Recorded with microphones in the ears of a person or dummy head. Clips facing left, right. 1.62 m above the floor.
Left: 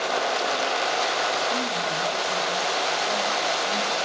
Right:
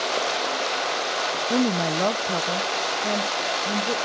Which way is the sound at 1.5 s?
75° right (ahead or behind).